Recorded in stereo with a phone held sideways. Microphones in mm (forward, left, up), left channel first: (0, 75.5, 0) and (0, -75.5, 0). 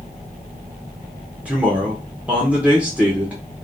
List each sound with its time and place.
1.4 s a man speaking: 10° right (ahead or behind), 0.7 m